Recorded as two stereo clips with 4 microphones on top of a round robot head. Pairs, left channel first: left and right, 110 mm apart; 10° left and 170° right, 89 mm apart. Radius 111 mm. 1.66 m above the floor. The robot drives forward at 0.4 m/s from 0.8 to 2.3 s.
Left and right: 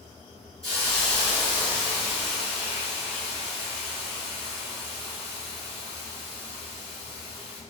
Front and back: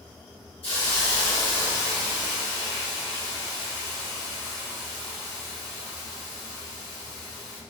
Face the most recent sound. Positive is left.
turn(degrees=25)